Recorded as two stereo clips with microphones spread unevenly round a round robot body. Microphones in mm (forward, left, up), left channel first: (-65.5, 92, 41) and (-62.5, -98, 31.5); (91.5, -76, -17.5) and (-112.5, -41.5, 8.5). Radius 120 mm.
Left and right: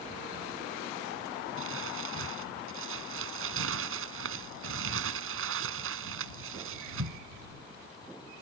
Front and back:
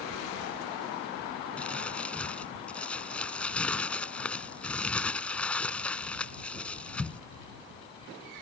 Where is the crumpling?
95° right.